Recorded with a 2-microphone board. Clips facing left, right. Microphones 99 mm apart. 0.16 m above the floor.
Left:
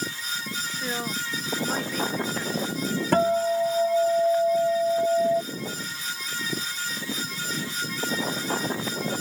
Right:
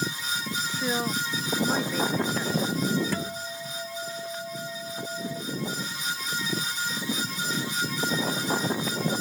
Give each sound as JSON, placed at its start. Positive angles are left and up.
{"t": 0.7, "sound": "a man speaking", "side_deg": -10}
{"t": 3.1, "sound": "a guitar", "side_deg": 55}